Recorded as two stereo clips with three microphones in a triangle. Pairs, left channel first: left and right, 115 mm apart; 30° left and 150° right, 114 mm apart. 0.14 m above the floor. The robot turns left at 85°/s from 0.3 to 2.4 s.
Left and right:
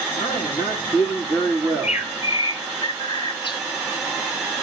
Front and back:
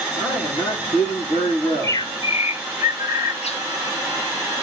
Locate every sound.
0.1 s a man speaking: 110° left, 6.5 m; by 2.0 s 35° right, 6.5 m
1.7 s a bird: 110° left, 0.6 m; by 3.6 s 45° left, 0.6 m